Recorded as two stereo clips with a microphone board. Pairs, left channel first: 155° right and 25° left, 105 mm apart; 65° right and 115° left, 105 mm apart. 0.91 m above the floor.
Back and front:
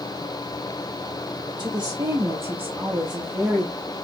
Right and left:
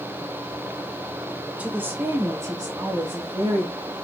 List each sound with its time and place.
1.6 s a woman speaking: 40° left, 1.1 m; by 3.8 s 120° left, 1.3 m